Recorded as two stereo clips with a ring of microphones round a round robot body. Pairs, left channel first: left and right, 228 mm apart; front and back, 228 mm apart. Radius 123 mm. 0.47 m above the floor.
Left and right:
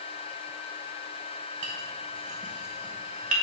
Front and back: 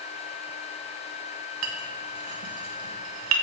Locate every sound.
1.6 s a clink: 155° right, 1.0 m